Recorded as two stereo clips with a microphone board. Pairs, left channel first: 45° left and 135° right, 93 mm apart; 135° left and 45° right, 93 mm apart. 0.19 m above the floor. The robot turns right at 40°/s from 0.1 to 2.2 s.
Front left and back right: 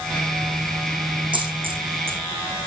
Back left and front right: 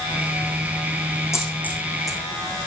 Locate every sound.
1.3 s a dropped coin: 165° right, 3.5 m; by 2.2 s 130° right, 3.5 m